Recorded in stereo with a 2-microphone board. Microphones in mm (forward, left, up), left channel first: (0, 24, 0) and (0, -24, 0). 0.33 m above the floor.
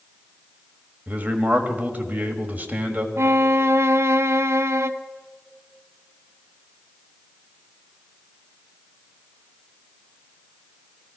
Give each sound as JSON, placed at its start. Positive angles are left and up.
{"t": 1.1, "sound": "a man speaking", "side_deg": -30, "distance_m": 1.5}
{"t": 3.2, "sound": "a violin", "side_deg": -70, "distance_m": 0.6}